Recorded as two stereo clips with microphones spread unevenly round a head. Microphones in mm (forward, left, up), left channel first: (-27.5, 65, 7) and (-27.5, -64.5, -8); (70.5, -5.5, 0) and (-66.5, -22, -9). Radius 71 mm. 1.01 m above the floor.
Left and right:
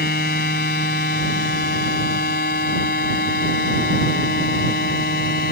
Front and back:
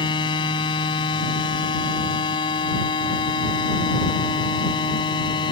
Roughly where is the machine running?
Ahead left.